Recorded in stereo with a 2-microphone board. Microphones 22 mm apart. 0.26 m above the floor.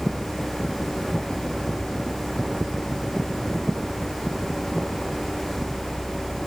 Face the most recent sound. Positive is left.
No sound to turn to.